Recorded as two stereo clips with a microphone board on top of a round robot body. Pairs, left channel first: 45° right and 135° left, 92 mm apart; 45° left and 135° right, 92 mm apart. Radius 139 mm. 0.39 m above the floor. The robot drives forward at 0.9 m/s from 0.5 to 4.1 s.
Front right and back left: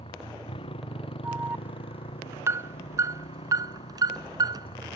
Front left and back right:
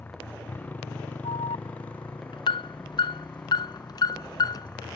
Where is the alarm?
65° left; by 5.0 s 90° left.